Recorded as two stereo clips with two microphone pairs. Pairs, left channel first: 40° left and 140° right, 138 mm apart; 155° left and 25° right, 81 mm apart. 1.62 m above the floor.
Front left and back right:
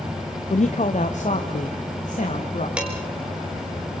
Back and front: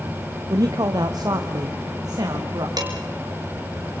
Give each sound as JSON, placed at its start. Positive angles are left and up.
{"t": 0.5, "sound": "a man speaking", "azimuth_deg": 10, "distance_m": 1.1}
{"t": 2.8, "sound": "dishes clattering", "azimuth_deg": -60, "distance_m": 5.0}